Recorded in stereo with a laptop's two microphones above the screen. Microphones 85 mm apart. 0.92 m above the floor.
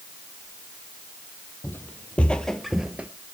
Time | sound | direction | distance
1.6 | footsteps | 25° left (ahead or behind) | 1.7 m